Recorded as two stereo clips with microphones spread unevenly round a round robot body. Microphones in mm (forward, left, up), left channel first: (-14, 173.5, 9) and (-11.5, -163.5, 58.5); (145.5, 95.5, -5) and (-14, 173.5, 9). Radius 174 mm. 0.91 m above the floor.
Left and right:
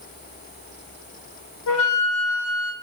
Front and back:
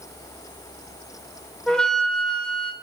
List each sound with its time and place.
1.7 s a flute: 60° left, 0.9 m